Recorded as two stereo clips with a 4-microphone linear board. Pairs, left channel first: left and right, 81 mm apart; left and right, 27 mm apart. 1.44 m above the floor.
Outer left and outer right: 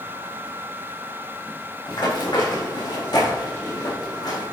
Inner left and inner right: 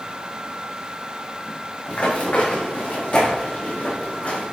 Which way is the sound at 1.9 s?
65° left (ahead or behind).